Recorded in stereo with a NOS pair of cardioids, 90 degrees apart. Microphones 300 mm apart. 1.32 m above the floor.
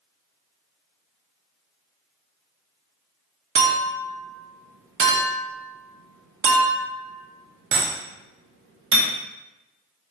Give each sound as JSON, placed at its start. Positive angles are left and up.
{"t": 3.5, "sound": "a clink", "azimuth_deg": -45, "distance_m": 0.5}